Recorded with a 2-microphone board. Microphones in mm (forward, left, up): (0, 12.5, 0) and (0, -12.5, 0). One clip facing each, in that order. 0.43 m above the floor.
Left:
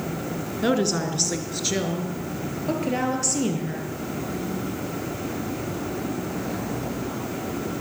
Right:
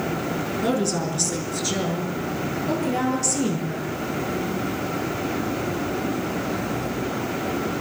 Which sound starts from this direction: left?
A woman speaking, at 0.6 s.